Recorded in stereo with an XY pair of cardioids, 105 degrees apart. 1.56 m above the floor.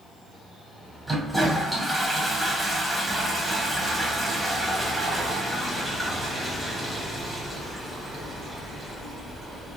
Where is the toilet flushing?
10° right, 1.2 m.